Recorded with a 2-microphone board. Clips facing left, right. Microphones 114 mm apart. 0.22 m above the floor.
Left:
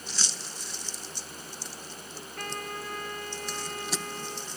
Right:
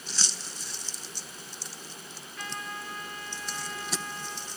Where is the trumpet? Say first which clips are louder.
Left 3 dB; 60° left (ahead or behind), 3 m.